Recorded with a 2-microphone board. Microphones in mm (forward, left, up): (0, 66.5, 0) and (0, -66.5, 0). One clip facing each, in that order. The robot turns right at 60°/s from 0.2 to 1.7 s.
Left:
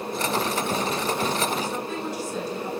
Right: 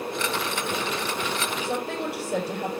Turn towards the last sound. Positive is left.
turn(degrees=-65)  # may be behind; listen again after turning